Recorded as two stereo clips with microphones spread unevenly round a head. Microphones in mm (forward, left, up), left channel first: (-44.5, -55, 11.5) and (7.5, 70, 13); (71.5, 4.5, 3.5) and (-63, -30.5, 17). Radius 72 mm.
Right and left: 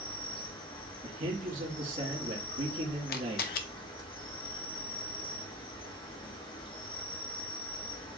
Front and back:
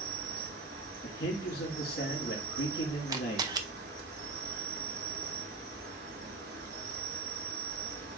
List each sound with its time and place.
0.0 s an insect: 165° right, 1.4 m
1.0 s a man speaking: 30° left, 1.8 m
3.1 s a camera shutter: 100° right, 0.6 m